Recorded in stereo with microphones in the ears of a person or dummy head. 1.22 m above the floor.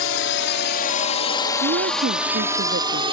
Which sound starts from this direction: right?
A woman speaking, at 1.6 s.